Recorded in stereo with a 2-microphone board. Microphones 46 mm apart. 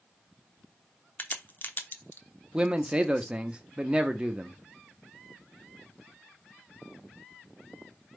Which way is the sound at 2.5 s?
25° right (ahead or behind).